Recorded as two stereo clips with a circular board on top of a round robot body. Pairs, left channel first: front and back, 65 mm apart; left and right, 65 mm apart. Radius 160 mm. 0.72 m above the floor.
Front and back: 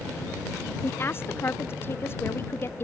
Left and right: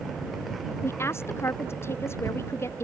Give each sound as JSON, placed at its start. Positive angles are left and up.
{"t": 0.8, "sound": "a woman speaking", "azimuth_deg": 50}